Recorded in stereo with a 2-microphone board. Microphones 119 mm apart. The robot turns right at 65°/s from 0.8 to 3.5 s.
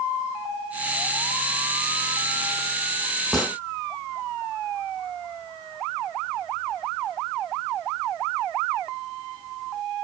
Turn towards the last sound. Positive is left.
turn(degrees=10)  # may be behind; listen again after turning